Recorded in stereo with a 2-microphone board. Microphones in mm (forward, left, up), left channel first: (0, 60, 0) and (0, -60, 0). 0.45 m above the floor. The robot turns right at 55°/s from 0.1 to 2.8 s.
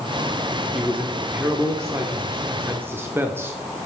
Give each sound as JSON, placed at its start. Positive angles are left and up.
{"t": 0.7, "sound": "a man speaking", "side_deg": -5, "distance_m": 0.7}